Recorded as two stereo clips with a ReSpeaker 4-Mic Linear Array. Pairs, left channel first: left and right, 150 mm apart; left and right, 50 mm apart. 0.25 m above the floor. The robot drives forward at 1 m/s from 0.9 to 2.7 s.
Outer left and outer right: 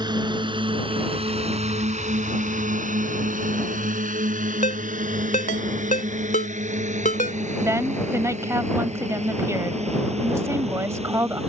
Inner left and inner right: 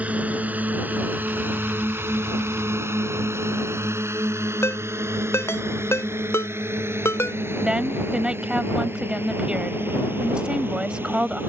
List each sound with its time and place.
0.0 s a drone: 30° right (ahead or behind); by 11.5 s 45° right (ahead or behind)
4.6 s a ringtone: 65° left (ahead or behind)
7.6 s a woman speaking: 20° right (ahead or behind)